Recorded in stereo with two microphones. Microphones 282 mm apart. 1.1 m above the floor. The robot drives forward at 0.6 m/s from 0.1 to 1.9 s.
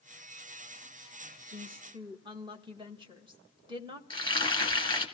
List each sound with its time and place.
1.5 s a woman speaking: 20° right (ahead or behind), 1.4 m; by 4.0 s 15° right (ahead or behind), 1.6 m
4.1 s frying: 15° left (ahead or behind), 2 m